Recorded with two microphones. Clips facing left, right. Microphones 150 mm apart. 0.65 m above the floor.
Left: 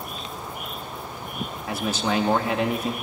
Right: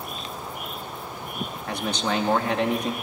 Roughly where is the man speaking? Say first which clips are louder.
Left 2 dB; centre.